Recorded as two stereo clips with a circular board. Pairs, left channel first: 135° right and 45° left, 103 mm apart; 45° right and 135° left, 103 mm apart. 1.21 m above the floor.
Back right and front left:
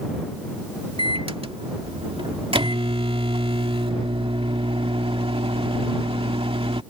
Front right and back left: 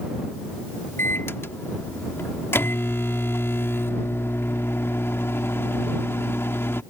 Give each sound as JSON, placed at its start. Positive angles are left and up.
{"t": 1.0, "sound": "a microwave", "azimuth_deg": 20}